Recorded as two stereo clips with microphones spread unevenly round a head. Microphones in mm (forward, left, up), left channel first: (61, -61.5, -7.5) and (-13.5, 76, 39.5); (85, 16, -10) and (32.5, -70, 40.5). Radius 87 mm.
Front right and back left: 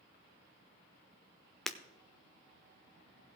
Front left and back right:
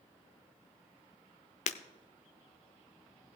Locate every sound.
1.7 s breaking glass: 50° left, 0.7 m